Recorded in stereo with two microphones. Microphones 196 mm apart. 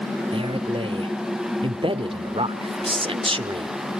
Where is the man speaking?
25° right (ahead or behind), 0.9 m.